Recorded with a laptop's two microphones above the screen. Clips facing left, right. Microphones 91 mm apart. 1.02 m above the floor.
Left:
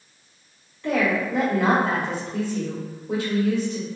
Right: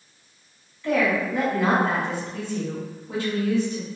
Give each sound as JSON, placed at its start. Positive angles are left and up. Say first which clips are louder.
{"t": 0.8, "sound": "a woman speaking", "louder": "even", "side_deg": 65, "distance_m": 1.9}